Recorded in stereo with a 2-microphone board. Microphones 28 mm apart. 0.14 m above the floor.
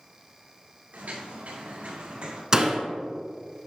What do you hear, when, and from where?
0.9 s footsteps: 90° right, 3 m; by 2.4 s 45° right (ahead or behind), 2.5 m
2.5 s a door slam: 20° right (ahead or behind), 1.0 m